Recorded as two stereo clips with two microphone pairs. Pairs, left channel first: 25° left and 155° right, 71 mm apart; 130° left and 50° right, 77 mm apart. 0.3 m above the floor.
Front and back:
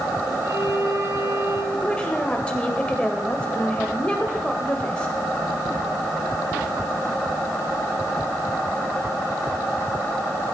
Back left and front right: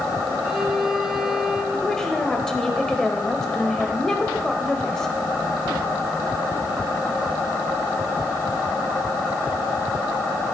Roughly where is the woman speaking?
Ahead left.